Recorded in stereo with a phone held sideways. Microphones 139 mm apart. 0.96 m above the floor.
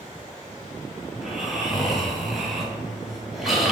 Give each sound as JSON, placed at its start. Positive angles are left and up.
{"t": 1.1, "sound": "snoring", "side_deg": 0, "distance_m": 3.0}